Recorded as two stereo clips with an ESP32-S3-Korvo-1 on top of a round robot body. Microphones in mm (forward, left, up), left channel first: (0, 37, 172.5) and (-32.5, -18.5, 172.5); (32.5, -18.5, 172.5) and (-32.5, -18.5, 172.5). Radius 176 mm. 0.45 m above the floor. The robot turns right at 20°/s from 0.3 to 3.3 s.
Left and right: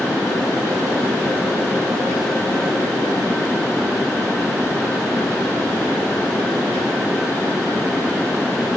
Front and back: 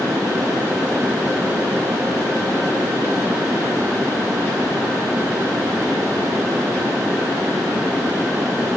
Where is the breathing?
No breathing in this recording.